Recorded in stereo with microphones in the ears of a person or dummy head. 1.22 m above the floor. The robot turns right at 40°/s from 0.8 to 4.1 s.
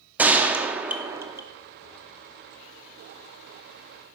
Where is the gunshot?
10° right (ahead or behind), 0.6 m; by 1.4 s 15° right (ahead or behind), 0.6 m.